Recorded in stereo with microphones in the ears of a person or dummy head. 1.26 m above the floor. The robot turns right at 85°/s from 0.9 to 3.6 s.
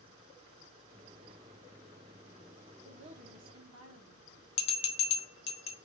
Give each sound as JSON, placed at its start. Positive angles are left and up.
{"t": 2.8, "sound": "a woman speaking", "azimuth_deg": -160, "distance_m": 0.8}
{"t": 4.6, "sound": "a bell", "side_deg": 30, "distance_m": 0.6}